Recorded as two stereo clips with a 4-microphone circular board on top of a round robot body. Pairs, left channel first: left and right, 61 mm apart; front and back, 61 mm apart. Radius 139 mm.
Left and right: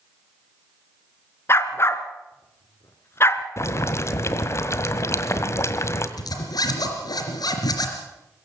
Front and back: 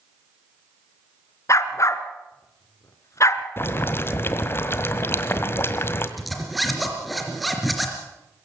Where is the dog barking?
40° left, 1.3 m.